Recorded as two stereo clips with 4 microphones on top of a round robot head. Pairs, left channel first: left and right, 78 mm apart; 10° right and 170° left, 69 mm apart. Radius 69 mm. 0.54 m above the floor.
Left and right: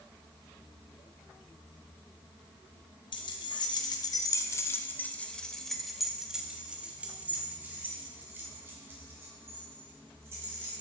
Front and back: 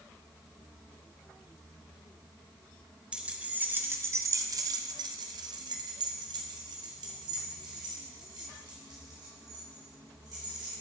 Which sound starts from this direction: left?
Keys jangling, at 3.1 s.